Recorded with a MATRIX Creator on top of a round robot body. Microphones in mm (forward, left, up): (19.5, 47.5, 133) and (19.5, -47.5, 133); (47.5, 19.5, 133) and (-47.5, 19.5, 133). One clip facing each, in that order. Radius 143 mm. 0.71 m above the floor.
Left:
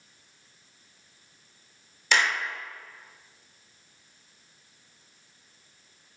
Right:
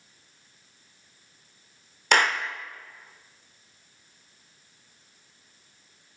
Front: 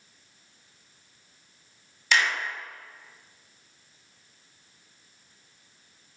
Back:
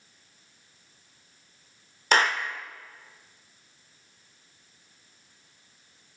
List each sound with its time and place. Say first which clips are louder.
2.1 s a clap: right 3 dB, back 3 dB; 130° right, 2.0 m